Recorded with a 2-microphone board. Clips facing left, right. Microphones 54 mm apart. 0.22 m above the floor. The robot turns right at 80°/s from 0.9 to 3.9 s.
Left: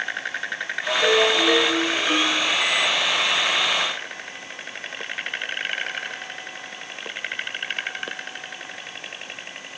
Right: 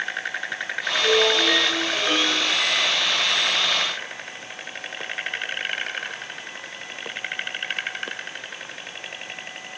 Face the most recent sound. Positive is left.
turn(degrees=-5)